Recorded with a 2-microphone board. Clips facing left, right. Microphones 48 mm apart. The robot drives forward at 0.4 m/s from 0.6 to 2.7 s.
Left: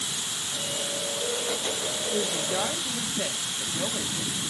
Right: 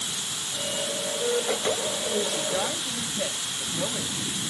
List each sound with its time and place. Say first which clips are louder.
2.1 s a woman speaking: even; 10° left (ahead or behind), 1.1 m